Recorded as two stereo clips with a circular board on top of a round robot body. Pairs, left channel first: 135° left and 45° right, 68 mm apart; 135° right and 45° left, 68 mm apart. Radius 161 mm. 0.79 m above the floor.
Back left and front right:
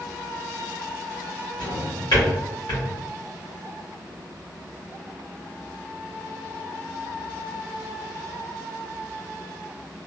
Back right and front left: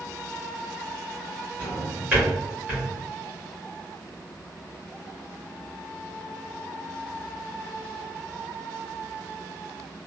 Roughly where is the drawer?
Behind left.